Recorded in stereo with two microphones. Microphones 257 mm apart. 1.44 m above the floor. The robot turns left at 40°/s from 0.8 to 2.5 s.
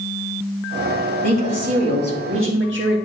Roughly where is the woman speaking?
Right.